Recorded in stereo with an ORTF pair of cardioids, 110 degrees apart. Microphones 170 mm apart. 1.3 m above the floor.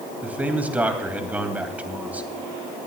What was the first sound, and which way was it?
A man speaking, 10° right.